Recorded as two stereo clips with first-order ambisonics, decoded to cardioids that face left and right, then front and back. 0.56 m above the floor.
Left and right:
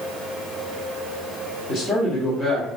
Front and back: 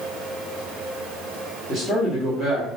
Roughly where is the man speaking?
Ahead left.